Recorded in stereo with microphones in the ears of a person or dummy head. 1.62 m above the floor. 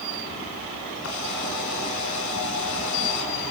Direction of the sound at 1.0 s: 80° left.